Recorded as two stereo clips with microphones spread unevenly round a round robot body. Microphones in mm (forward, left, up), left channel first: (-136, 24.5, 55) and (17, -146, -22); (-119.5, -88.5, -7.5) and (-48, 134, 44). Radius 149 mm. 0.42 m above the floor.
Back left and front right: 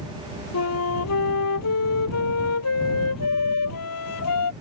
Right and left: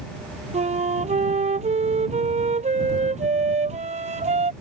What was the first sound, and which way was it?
A flute, 130° left.